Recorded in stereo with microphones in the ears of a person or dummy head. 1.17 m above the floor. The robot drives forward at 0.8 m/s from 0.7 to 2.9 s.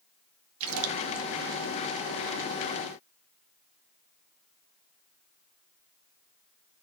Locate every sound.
0.6 s a splash: 80° right, 1.1 m